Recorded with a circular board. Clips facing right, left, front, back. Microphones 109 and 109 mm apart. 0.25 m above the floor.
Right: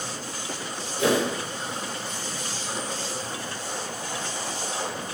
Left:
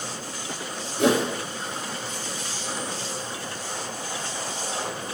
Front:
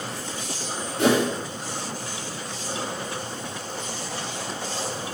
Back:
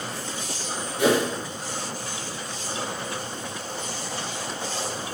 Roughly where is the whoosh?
Ahead left.